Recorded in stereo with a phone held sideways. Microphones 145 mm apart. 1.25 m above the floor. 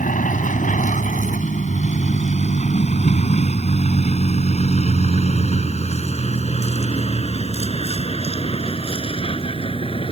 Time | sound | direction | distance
0.0 | a vehicle | 65° left (ahead or behind) | ?